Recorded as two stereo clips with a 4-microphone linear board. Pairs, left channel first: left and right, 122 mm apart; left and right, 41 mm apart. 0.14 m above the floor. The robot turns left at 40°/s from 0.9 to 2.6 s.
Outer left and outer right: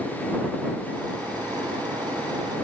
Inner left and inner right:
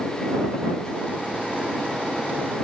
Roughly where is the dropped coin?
I don't hear a dropped coin.